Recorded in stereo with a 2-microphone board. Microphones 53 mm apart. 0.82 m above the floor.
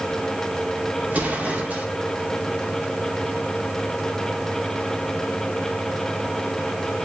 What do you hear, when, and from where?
1.1 s an explosion: 30° right (ahead or behind), 2.0 m